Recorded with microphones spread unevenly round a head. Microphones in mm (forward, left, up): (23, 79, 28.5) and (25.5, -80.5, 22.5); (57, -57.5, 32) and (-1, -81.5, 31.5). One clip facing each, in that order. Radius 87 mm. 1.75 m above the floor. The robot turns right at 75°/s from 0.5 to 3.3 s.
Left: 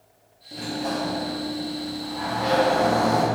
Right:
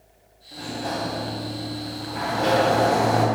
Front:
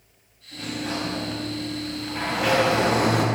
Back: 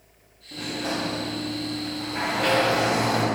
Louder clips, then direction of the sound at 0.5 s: Left 2 dB, back 1 dB; 150° left.